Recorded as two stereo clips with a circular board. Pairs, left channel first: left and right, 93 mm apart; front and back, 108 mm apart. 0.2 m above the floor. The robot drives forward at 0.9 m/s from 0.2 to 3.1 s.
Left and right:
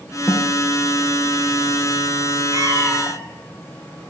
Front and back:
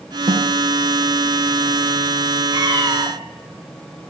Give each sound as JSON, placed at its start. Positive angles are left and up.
{"t": 0.3, "sound": "a snare drum", "azimuth_deg": 155, "distance_m": 2.0}
{"t": 2.5, "sound": "a cat meowing", "azimuth_deg": -135, "distance_m": 2.5}